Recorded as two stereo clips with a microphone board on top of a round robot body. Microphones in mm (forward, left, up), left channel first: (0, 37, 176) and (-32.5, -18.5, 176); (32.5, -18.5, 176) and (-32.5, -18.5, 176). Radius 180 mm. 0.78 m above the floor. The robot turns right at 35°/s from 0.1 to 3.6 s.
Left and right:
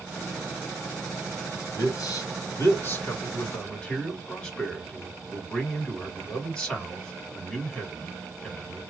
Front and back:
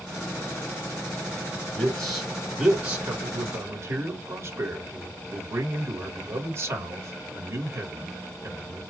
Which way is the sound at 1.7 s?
70° left.